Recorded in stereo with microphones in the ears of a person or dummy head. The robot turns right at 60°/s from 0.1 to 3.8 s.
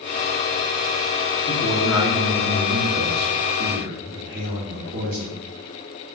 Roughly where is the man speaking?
Behind.